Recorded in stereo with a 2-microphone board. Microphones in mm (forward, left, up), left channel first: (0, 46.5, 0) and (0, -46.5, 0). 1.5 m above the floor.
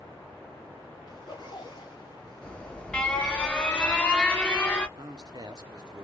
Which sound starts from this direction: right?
A man speaking, at 5.0 s.